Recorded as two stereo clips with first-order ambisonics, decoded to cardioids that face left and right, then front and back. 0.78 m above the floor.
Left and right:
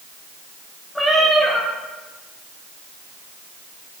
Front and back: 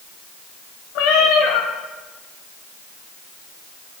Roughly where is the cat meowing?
Ahead.